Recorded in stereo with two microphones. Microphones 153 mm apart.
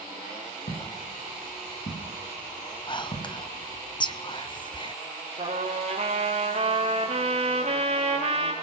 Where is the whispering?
30° left (ahead or behind), 1.6 m.